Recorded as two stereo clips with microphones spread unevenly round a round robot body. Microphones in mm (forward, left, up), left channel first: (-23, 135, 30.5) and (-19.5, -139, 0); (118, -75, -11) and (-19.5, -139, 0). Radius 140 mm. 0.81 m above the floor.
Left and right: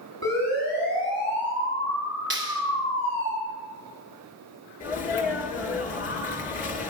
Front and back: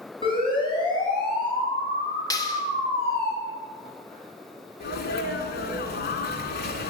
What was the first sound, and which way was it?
A siren, 30° right.